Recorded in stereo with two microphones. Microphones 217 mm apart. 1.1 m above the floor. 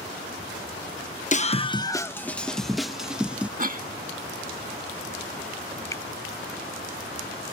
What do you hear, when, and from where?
1.3 s a scream: 35° left (ahead or behind); by 3.5 s 5° right (ahead or behind)
3.6 s a cough: 40° right (ahead or behind)
5.9 s a finger snap: 15° left (ahead or behind)